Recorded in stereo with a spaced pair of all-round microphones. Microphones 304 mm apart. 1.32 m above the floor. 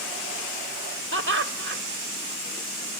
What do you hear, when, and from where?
1.1 s laughter: 40° right (ahead or behind), 1.2 m